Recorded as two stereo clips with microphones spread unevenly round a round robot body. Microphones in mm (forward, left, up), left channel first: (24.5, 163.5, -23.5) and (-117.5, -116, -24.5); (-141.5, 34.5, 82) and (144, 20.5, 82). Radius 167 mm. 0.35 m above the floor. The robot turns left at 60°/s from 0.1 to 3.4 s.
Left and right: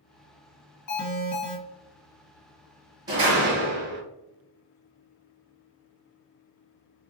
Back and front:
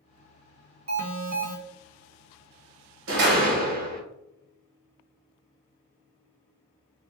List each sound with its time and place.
0.9 s an alarm: 30° left, 2 m; by 1.6 s 10° right, 2 m
3.1 s a door slam: 40° right, 1.5 m; by 4.0 s 60° right, 1.5 m